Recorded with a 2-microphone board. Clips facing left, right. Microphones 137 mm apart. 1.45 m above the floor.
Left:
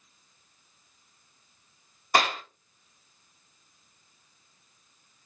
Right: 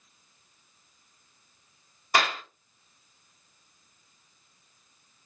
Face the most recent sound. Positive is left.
turn(degrees=40)  # may be behind; listen again after turning